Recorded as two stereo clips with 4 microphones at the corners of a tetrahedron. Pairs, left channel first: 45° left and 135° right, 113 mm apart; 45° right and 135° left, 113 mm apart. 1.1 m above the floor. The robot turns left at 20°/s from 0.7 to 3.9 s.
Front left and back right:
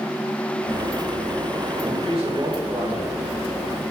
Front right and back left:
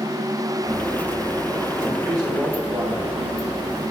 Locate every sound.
1.8 s a man speaking: 160° right, 4.5 m; by 3.8 s 160° left, 4.5 m